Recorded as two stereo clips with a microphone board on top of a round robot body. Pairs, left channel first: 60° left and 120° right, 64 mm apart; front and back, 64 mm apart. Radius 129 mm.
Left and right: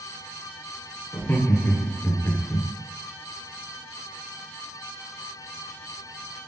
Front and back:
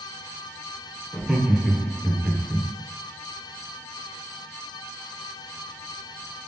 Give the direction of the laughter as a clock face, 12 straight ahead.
9 o'clock.